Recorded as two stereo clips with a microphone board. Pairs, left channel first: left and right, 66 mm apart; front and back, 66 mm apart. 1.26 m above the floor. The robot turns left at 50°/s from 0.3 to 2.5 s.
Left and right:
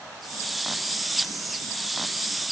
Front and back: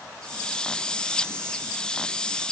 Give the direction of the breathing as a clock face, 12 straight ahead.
I don't hear breathing.